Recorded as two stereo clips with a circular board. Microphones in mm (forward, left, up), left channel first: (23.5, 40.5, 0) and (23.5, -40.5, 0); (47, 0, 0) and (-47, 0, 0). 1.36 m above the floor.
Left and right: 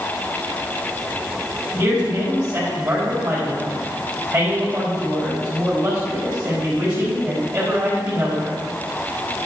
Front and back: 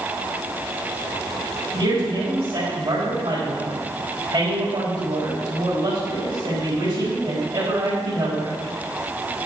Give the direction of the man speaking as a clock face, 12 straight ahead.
6 o'clock.